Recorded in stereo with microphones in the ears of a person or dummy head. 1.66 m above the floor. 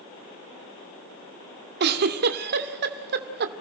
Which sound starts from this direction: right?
A giggle, at 1.8 s.